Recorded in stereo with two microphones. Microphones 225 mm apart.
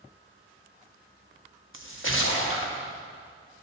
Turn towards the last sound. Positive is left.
turn(degrees=60)  # may be behind; listen again after turning